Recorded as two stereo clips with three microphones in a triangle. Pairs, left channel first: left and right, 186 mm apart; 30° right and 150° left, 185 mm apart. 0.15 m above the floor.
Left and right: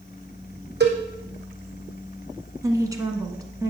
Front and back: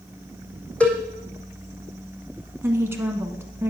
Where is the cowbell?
115° right, 1.9 m.